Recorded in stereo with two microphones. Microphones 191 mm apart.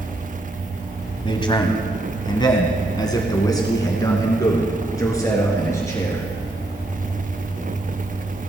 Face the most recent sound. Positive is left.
turn(degrees=15)  # may be behind; listen again after turning